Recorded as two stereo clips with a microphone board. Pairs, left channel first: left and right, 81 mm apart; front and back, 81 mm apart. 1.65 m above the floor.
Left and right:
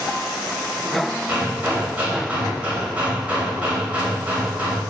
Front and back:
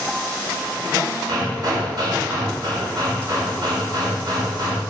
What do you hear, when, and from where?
1.3 s hammering: 160° right, 2.5 m